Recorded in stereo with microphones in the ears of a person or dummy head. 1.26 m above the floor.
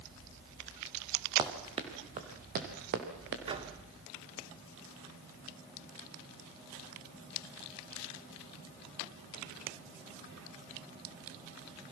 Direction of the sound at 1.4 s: 25° right (ahead or behind).